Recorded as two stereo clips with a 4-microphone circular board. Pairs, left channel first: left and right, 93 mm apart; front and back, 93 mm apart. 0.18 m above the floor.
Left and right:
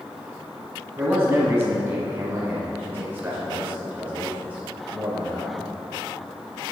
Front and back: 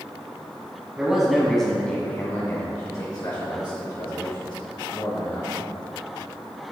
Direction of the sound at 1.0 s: 115° right.